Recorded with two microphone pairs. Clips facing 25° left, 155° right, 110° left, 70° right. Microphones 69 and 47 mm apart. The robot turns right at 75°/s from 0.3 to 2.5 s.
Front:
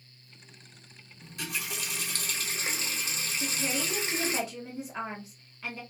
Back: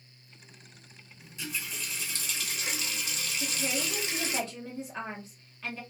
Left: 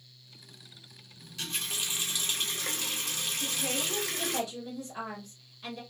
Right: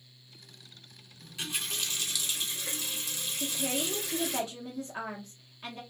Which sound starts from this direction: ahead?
A running tap, at 1.2 s.